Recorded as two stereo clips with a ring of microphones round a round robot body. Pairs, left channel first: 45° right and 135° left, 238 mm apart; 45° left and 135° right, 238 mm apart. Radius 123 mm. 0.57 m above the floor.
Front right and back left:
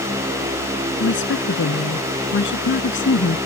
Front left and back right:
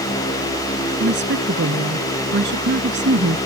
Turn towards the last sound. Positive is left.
turn(degrees=-90)